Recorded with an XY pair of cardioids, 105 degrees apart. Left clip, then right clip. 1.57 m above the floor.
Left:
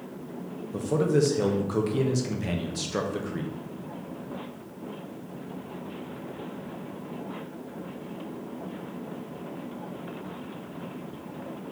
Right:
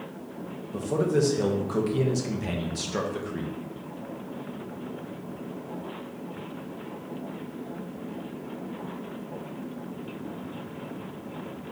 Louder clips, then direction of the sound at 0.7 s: Left 1 dB; 10° left.